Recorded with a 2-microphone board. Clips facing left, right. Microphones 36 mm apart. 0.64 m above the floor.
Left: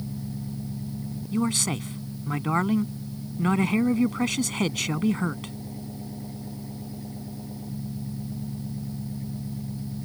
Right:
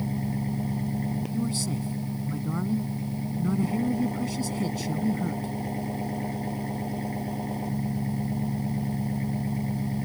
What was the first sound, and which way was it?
An engine running, 85° right.